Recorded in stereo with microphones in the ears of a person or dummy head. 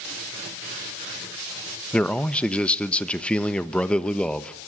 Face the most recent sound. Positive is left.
turn(degrees=5)  # may be behind; listen again after turning